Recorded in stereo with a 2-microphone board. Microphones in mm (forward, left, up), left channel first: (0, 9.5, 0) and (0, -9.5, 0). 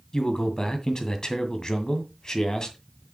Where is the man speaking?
30° left (ahead or behind), 2 m.